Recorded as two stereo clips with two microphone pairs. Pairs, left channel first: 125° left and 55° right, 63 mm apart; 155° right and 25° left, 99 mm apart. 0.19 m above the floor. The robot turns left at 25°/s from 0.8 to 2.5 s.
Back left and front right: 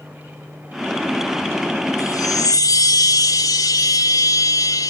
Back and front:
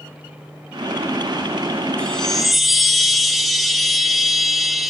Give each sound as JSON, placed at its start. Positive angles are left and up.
{"t": 2.0, "sound": "a chime", "azimuth_deg": 130, "distance_m": 0.7}